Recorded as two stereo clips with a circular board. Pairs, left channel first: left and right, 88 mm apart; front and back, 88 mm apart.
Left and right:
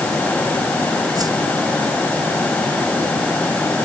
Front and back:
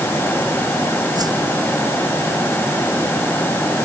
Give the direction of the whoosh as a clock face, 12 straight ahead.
5 o'clock.